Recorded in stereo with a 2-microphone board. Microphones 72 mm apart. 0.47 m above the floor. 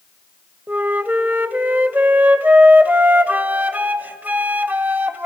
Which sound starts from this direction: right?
A flute, at 0.7 s.